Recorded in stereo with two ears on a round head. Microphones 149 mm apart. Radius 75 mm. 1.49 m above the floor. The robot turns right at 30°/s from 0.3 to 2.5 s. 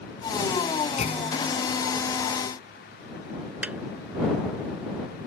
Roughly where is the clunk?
Left.